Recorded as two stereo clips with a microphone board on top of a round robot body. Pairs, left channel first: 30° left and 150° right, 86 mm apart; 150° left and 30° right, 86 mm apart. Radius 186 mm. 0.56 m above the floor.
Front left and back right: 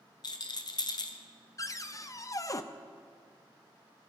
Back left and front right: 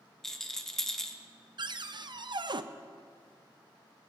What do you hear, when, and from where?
0.2 s a rattle: 65° left, 1.0 m
1.6 s a cupboard door: 15° right, 0.7 m